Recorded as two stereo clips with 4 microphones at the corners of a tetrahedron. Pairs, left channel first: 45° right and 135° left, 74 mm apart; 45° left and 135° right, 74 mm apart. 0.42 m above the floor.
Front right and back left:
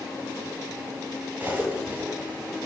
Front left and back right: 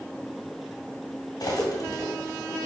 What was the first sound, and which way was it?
Cutlery clinking, 70° left.